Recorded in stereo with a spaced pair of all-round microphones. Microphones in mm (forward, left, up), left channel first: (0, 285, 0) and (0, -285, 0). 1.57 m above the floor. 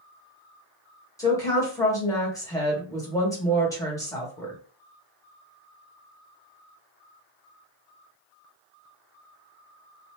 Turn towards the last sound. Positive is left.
turn(degrees=5)  # may be behind; listen again after turning